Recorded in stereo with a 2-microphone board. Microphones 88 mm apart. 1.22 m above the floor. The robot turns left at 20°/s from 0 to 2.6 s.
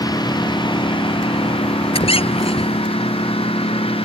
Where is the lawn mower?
135° left; by 4.1 s 85° left.